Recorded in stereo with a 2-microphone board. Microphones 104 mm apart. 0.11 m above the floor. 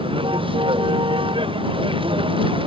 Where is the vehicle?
55° right (ahead or behind).